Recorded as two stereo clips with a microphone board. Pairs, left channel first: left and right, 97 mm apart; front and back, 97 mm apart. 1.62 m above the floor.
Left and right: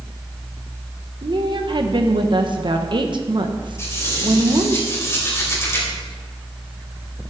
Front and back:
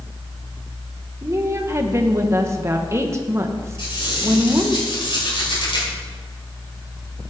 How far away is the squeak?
About 5 m.